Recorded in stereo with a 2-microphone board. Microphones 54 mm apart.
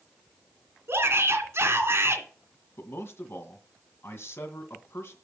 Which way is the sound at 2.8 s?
55° left (ahead or behind).